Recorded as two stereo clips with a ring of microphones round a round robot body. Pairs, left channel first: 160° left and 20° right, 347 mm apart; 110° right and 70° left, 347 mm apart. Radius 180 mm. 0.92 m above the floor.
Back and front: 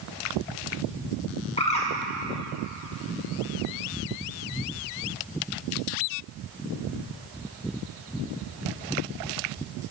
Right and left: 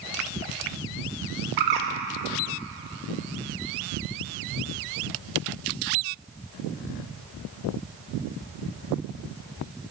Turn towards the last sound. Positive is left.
turn(degrees=85)